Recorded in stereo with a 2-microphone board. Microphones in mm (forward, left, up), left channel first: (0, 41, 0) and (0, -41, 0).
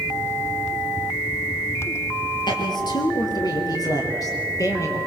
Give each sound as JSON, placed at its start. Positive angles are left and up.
{"t": 2.5, "sound": "a woman speaking", "side_deg": 60, "distance_m": 3.5}